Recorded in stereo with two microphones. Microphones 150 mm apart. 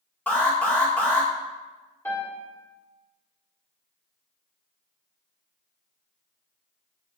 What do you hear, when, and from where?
0.3 s an alarm: 10° left (ahead or behind), 1.4 m
2.0 s a piano: 15° left (ahead or behind), 1.6 m